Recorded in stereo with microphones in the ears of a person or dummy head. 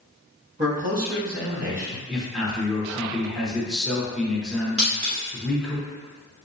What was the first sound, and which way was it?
A man speaking, 45° right (ahead or behind).